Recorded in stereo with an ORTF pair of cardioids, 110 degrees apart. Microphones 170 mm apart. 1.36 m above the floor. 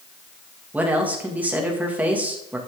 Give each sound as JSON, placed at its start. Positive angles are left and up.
{"t": 0.7, "sound": "a man speaking", "azimuth_deg": -10, "distance_m": 2.5}